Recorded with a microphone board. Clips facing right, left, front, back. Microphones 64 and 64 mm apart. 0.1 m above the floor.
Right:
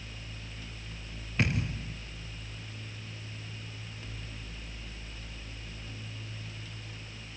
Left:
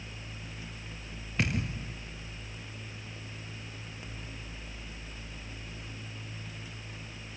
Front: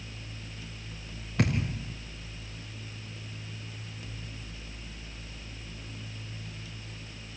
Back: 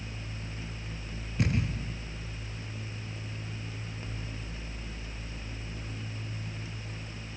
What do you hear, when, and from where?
1.4 s a thud: straight ahead, 5 m